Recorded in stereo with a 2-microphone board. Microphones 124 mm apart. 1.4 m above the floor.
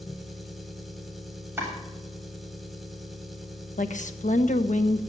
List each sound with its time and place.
0.0 s an engine running: centre (ahead or behind), 2.0 m
1.6 s chopping: 15° right (ahead or behind), 8.5 m
3.8 s a woman speaking: 85° left, 1.2 m